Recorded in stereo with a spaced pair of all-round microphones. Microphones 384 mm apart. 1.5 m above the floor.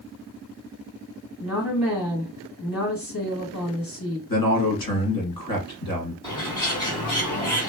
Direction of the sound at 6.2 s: 10° left (ahead or behind).